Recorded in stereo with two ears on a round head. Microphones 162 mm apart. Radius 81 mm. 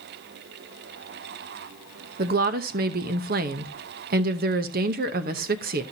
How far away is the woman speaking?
About 0.9 m.